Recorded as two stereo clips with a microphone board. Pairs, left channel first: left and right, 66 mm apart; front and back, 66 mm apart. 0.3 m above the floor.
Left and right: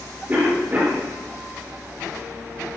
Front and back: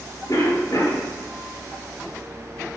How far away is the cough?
About 4.5 m.